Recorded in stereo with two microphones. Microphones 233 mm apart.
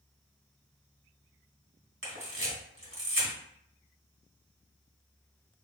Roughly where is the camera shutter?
Right.